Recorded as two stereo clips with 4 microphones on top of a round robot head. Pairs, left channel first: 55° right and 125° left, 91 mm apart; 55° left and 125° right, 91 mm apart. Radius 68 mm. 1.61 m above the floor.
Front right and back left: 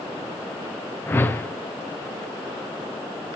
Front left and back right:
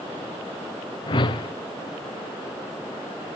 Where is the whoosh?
15° left, 0.9 m.